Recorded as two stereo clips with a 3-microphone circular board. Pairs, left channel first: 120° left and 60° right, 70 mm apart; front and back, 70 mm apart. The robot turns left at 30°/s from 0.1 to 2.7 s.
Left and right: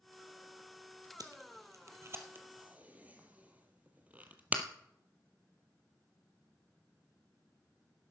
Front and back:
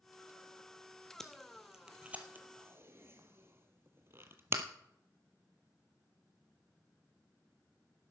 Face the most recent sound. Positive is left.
turn(degrees=-125)